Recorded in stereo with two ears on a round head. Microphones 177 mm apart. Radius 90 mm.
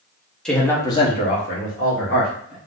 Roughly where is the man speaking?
Centre.